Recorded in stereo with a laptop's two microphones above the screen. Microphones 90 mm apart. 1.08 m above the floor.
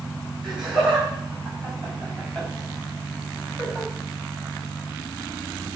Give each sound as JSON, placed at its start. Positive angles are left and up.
{"t": 0.4, "sound": "laughter", "side_deg": 0, "distance_m": 6.0}